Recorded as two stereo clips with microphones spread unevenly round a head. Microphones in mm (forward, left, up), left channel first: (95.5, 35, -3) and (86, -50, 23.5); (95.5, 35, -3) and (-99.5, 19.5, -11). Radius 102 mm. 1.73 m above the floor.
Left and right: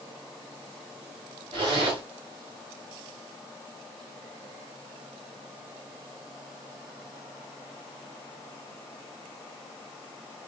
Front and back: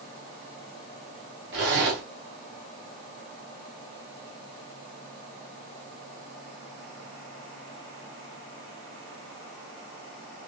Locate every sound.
1.5 s a zipper: 140° right, 1.4 m